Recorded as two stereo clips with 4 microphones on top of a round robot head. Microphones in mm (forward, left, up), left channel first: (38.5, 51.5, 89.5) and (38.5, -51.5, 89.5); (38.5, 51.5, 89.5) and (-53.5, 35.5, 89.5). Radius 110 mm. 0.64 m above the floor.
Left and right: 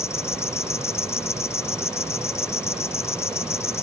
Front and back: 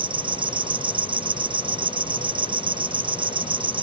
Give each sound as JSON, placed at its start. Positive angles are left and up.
{"t": 0.0, "sound": "an insect", "azimuth_deg": 160}